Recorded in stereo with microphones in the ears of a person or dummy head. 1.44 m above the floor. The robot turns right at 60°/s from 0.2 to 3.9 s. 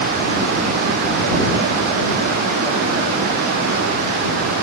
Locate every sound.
Only background noise.